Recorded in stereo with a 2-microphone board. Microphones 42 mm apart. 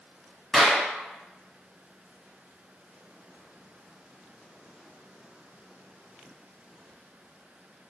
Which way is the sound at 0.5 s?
Centre (ahead or behind).